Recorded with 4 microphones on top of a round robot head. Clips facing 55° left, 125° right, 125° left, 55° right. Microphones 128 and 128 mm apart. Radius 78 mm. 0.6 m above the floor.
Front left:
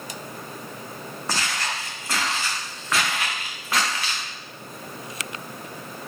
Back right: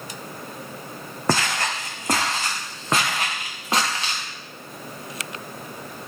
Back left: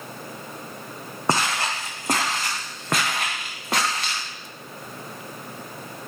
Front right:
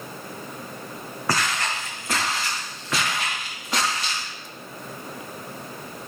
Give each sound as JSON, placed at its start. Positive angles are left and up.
{"t": 1.3, "sound": "footsteps", "azimuth_deg": -165, "distance_m": 1.7}